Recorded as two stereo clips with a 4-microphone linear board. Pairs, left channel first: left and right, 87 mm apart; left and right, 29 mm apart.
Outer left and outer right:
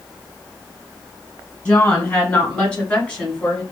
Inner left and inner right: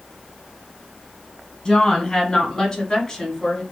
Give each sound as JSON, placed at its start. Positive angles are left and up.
{"t": 1.6, "sound": "a woman speaking", "side_deg": 20, "distance_m": 1.2}